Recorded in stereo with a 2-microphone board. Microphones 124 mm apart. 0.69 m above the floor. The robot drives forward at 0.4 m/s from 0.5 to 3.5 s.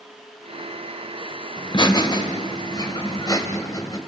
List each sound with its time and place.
1.6 s laughter: 35° left (ahead or behind), 2.5 m; by 4.0 s 30° left (ahead or behind), 3 m